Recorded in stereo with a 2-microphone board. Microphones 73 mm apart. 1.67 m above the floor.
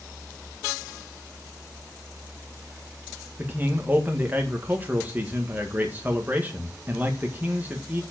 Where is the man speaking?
25° right (ahead or behind), 1.7 m.